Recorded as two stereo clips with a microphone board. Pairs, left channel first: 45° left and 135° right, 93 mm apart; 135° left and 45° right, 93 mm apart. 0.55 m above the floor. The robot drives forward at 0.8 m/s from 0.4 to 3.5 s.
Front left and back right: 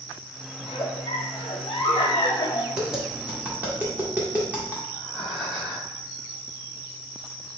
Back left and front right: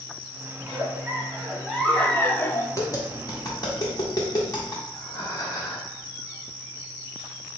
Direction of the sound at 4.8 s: 135° left.